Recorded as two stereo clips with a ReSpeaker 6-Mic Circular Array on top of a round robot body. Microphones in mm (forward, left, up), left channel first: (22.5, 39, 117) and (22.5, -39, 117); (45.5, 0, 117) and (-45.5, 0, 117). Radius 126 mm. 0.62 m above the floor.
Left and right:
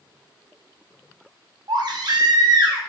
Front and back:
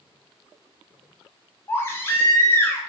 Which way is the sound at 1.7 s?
65° right.